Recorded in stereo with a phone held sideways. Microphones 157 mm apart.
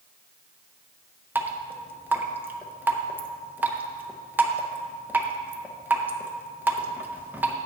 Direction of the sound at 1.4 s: 10° right (ahead or behind).